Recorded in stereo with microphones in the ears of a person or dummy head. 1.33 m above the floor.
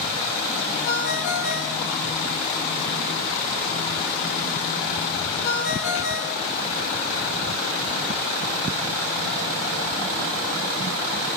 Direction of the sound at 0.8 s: 60° left (ahead or behind).